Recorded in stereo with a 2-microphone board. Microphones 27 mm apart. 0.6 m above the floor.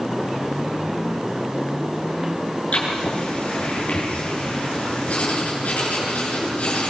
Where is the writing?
60° left (ahead or behind), 9 m.